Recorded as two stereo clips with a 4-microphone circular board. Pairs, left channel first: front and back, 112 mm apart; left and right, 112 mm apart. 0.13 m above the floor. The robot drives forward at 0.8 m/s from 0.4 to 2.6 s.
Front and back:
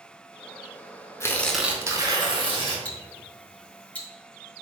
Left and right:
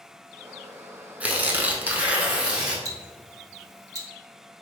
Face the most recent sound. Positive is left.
turn(degrees=-65)